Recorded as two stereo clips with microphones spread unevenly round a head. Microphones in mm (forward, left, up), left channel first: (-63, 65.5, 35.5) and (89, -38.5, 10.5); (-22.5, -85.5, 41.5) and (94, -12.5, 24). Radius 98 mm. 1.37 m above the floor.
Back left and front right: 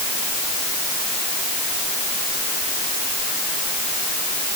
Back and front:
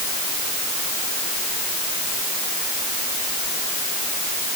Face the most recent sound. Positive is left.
No sound to turn to.